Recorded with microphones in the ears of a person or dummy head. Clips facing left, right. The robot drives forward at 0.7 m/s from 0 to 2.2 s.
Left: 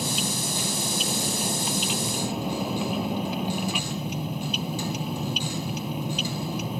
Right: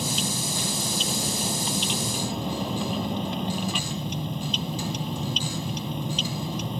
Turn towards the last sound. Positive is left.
turn(degrees=10)  # may be behind; listen again after turning